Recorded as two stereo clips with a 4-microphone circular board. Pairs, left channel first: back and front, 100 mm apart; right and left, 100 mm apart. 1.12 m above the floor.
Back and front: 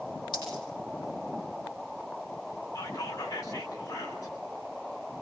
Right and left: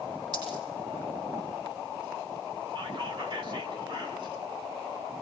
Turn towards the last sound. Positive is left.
turn(degrees=125)